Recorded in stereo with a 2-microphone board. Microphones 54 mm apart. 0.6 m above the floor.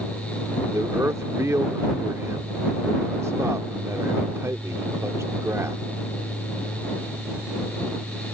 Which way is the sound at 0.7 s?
60° right (ahead or behind).